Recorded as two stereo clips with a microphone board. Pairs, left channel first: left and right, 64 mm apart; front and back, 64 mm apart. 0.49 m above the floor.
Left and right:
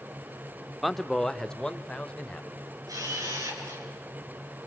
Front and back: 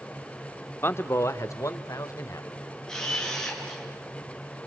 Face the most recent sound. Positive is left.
turn(degrees=-80)